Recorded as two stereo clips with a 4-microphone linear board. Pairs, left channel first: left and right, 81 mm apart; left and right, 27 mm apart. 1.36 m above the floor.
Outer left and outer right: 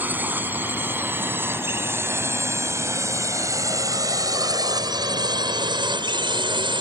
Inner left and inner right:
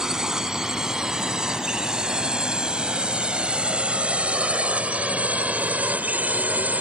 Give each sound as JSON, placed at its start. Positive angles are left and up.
{"t": 0.0, "sound": "a drone", "side_deg": -20}